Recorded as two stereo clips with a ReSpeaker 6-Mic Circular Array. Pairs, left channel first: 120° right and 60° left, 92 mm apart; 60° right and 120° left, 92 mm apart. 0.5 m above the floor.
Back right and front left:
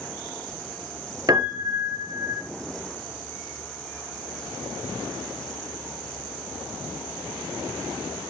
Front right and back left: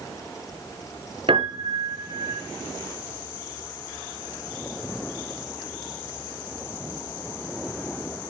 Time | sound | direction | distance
1.3 | a piano | 105° left | 2 m